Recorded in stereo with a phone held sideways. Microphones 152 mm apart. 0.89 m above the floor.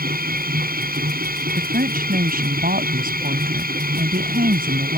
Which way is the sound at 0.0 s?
80° right.